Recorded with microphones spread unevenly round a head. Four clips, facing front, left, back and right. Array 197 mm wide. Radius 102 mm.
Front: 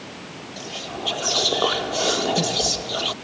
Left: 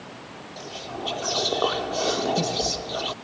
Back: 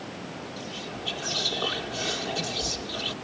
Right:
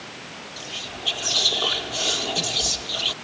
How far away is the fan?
I don't hear a fan.